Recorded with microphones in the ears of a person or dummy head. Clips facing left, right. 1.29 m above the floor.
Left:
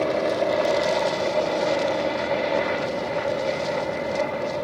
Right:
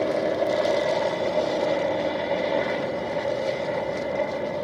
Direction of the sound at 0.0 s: 5° left (ahead or behind).